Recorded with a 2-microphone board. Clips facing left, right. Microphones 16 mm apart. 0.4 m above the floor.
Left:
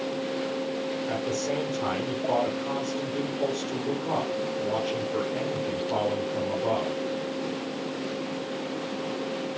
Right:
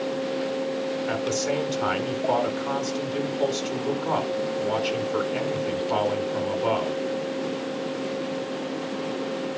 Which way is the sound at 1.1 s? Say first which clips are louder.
Right 3 dB; 75° right (ahead or behind).